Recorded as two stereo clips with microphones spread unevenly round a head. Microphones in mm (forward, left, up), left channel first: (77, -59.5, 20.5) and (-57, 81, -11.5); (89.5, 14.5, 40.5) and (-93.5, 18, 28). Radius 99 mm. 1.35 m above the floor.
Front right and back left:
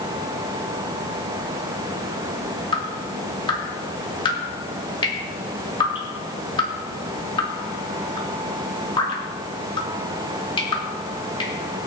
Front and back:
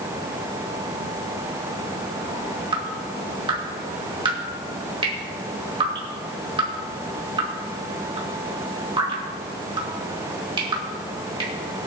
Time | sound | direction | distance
2.7 | dripping | 115° right | 2.5 m